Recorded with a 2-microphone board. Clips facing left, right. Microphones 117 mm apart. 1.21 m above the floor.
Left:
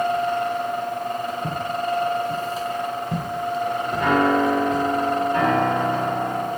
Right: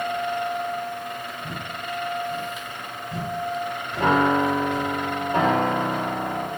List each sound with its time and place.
1.4 s footsteps: 60° left (ahead or behind), 6.5 m; by 4.8 s 70° left (ahead or behind), 7.5 m
4.0 s a piano: 30° right (ahead or behind), 3.5 m